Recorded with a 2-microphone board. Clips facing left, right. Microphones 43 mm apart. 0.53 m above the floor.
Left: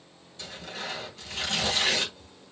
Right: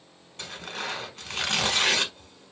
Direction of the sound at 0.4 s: 55° right (ahead or behind).